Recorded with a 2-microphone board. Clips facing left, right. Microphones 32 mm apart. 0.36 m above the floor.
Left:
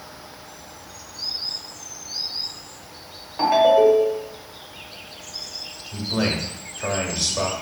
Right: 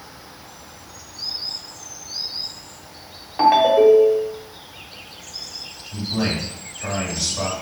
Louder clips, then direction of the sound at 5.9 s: Even; 45° left (ahead or behind).